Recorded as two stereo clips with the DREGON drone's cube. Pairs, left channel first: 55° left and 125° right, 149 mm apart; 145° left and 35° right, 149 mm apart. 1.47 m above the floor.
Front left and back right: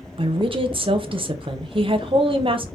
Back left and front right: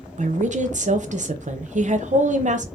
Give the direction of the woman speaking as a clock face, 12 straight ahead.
2 o'clock.